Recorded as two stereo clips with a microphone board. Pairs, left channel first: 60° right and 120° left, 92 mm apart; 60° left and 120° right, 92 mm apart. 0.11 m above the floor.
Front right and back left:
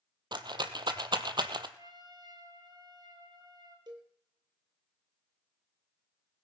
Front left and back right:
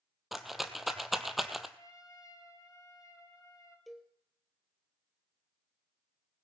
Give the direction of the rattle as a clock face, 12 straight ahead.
7 o'clock.